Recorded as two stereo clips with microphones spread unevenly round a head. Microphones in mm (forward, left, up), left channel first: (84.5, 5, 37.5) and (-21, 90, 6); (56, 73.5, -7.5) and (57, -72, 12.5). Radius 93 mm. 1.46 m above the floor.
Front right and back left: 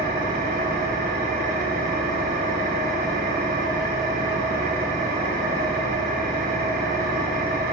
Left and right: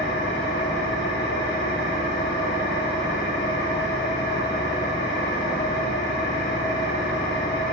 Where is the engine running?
130° left, 1.7 m.